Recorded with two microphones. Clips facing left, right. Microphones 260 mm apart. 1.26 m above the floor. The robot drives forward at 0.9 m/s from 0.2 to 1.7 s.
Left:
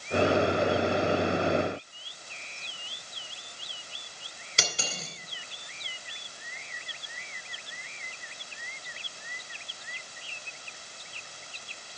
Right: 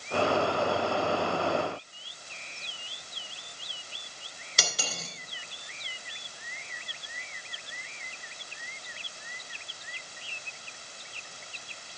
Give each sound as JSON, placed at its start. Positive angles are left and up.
{"t": 4.6, "sound": "cutlery clinking", "side_deg": 25, "distance_m": 2.0}